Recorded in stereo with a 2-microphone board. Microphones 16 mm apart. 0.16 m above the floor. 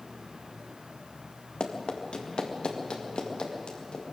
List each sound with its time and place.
1.6 s running footsteps: 70° left (ahead or behind), 3 m; by 4.1 s 85° left, 4.5 m